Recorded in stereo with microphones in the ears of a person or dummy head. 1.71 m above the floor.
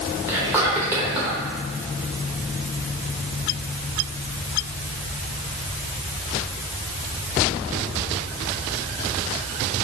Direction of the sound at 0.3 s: 15° right (ahead or behind).